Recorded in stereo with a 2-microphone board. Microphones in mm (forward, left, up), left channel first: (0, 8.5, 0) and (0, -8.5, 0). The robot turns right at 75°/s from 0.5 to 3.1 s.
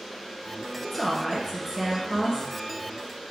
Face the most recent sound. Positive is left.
turn(degrees=-45)